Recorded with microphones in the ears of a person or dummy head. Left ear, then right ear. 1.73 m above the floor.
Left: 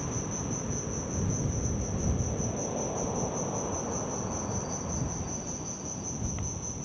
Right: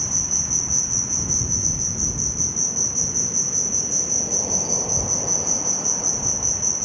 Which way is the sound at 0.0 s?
65° right (ahead or behind).